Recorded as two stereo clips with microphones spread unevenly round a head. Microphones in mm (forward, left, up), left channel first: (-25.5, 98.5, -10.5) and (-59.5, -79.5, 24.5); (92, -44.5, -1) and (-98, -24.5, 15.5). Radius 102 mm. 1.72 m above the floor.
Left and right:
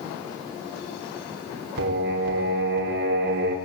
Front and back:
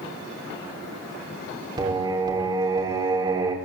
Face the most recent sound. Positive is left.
turn(degrees=-120)